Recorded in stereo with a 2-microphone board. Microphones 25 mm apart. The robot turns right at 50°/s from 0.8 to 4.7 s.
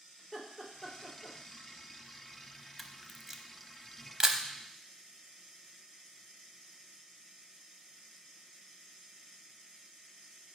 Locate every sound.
0.2 s laughter: centre (ahead or behind), 2 m; by 1.4 s 30° left (ahead or behind), 2 m
2.8 s a camera shutter: centre (ahead or behind), 0.6 m; by 4.4 s 30° right (ahead or behind), 0.6 m